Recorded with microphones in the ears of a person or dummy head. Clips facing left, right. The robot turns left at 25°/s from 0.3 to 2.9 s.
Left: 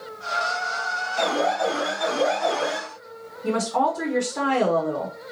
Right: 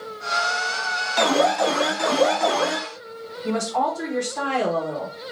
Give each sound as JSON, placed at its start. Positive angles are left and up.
{"t": 1.2, "sound": "an alarm", "azimuth_deg": -80, "distance_m": 0.7}
{"t": 3.4, "sound": "a woman speaking", "side_deg": 25, "distance_m": 0.8}